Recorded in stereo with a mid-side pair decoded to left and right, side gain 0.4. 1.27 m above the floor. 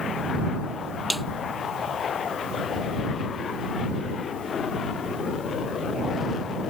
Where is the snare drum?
10° right.